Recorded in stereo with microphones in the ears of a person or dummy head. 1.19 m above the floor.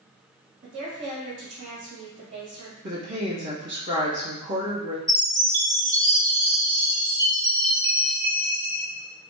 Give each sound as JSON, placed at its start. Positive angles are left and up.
{"t": 0.6, "sound": "a woman speaking", "side_deg": -60, "distance_m": 1.1}
{"t": 2.8, "sound": "a woman speaking", "side_deg": -55, "distance_m": 1.3}
{"t": 5.1, "sound": "a chime", "side_deg": -25, "distance_m": 1.0}